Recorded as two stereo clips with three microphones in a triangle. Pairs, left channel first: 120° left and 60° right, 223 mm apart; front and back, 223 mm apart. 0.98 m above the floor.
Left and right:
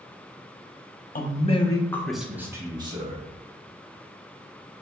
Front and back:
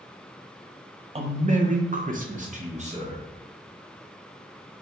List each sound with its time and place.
1.1 s a man speaking: 135° left, 0.7 m; by 3.2 s 120° right, 1.1 m